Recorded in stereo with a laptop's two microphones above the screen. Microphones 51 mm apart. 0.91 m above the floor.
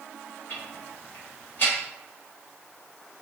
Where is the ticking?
45° left (ahead or behind), 1.3 m.